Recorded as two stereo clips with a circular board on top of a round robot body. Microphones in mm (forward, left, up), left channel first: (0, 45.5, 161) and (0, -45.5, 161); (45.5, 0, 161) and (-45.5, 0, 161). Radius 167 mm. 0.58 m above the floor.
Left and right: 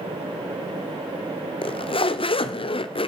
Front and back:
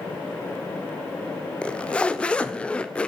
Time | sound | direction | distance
1.6 | a zipper | 80° left | 1.7 m